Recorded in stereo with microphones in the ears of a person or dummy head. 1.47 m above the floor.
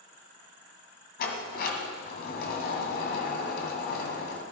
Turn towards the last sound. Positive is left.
turn(degrees=50)  # may be behind; listen again after turning